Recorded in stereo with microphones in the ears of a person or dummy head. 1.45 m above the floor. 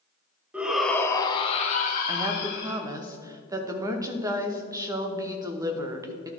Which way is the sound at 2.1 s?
20° right (ahead or behind).